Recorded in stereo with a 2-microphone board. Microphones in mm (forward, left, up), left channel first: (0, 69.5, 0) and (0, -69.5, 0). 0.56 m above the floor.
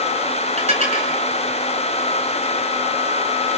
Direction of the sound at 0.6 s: 50° right (ahead or behind).